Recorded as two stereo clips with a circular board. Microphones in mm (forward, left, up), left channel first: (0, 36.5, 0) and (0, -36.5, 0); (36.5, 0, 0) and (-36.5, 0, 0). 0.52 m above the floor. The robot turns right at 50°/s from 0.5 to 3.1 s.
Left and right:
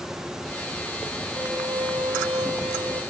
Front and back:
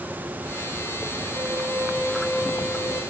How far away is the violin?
About 1.7 m.